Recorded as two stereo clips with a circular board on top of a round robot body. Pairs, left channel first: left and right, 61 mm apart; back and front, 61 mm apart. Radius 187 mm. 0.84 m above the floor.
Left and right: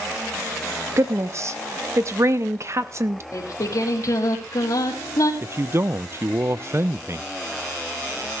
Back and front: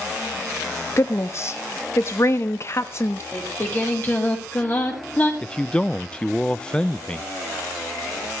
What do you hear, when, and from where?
1.0 s a woman speaking: 135° right, 1.3 m
3.3 s singing: 120° left, 4.5 m
5.4 s a man speaking: 110° right, 0.6 m